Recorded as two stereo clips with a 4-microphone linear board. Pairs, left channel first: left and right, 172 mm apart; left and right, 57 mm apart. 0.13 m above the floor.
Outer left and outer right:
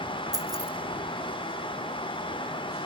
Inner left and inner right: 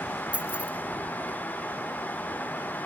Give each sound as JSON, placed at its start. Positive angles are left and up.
{"t": 0.3, "sound": "keys jangling", "side_deg": -20, "distance_m": 2.0}